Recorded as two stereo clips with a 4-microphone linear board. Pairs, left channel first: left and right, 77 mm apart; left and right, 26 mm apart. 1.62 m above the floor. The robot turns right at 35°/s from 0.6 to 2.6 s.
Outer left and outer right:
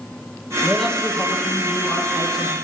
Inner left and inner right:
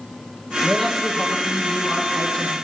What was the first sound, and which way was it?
A man speaking, straight ahead.